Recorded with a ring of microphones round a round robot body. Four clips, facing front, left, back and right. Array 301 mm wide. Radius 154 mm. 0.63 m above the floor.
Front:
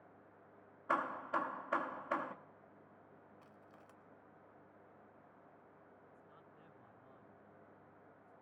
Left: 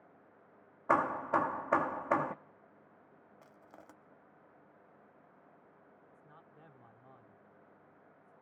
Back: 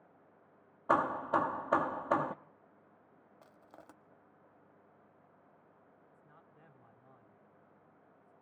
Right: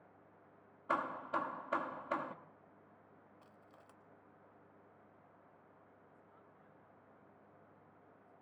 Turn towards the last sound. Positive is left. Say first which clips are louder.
# left 4 dB, front 1 dB
turn(degrees=105)